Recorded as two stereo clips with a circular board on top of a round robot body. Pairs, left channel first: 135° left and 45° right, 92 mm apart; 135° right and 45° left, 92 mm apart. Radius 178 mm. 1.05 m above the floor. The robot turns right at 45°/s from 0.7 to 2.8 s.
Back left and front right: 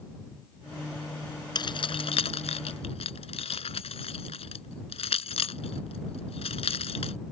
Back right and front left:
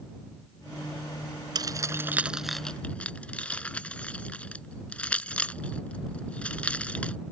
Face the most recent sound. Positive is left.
turn(degrees=145)